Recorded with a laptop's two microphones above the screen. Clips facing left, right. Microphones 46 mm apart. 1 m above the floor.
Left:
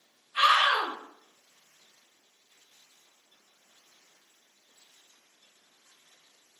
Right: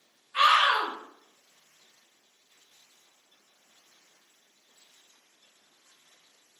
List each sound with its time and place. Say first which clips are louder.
0.3 s a scream: right 1 dB; 70° right (ahead or behind), 1.6 m